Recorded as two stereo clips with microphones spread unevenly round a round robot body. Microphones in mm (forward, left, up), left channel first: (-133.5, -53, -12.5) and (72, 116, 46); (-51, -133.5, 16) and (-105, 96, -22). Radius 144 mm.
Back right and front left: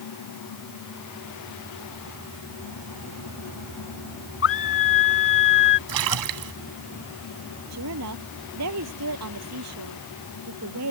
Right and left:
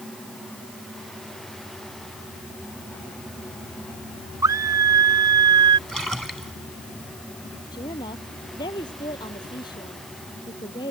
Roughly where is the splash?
Ahead.